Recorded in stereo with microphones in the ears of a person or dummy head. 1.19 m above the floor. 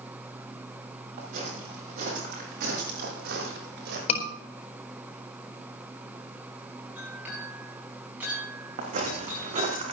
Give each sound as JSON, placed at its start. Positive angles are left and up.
{"t": 1.2, "sound": "footsteps", "side_deg": -45, "distance_m": 9.0}
{"t": 4.1, "sound": "a scream", "side_deg": 40, "distance_m": 4.0}
{"t": 7.0, "sound": "a clink", "side_deg": -5, "distance_m": 7.5}
{"t": 8.8, "sound": "footsteps", "side_deg": -40, "distance_m": 5.0}